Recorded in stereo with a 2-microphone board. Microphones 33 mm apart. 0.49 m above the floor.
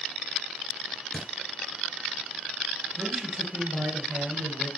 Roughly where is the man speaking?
Right.